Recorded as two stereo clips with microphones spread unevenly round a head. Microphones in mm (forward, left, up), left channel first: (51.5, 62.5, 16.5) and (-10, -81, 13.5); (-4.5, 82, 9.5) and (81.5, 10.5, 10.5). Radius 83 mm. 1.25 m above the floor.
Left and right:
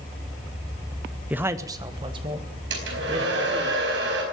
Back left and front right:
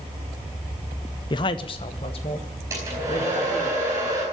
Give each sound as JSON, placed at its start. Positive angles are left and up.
{"t": 1.3, "sound": "a man speaking", "azimuth_deg": 170, "distance_m": 0.7}
{"t": 2.7, "sound": "a hair dryer", "azimuth_deg": -115, "distance_m": 4.5}